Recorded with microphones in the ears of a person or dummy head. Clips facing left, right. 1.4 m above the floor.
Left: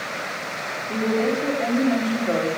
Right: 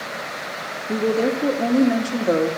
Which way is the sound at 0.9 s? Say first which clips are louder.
Right 2 dB; 80° right.